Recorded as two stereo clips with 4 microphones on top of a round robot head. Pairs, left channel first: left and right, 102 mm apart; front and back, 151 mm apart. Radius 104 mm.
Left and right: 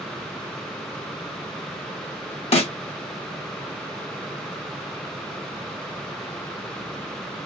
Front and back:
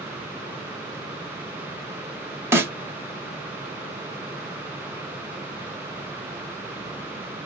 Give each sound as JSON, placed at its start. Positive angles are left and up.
{"t": 2.5, "sound": "a snare drum", "azimuth_deg": 105, "distance_m": 1.3}